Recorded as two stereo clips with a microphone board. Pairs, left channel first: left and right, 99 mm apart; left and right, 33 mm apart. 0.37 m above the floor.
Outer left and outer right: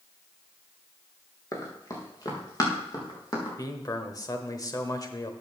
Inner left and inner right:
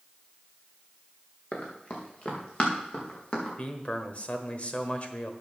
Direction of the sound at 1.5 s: 35° left (ahead or behind).